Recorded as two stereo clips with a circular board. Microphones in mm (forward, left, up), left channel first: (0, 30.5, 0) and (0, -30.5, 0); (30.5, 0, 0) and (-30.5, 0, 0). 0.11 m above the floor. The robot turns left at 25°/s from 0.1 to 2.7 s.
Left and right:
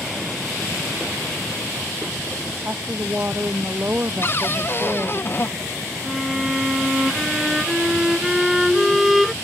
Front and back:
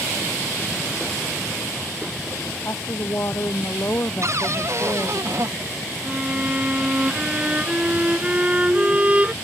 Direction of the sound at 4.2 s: 140° left.